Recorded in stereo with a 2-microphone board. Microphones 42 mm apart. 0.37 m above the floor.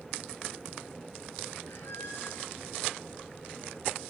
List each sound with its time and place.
1.7 s a squeak: 85° left, 3 m